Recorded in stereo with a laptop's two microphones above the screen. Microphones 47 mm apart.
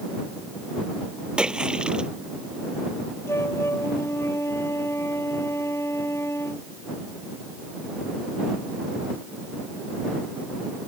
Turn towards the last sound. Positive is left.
turn(degrees=90)